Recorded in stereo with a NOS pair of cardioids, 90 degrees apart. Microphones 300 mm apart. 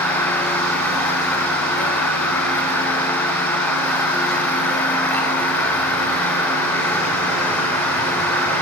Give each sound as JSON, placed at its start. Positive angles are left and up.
{"t": 0.0, "sound": "a machine running", "azimuth_deg": 5, "distance_m": 6.0}